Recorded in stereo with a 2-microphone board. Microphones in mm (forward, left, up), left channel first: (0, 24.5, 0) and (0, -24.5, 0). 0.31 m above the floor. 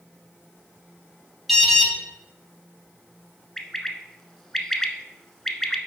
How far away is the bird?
About 0.7 m.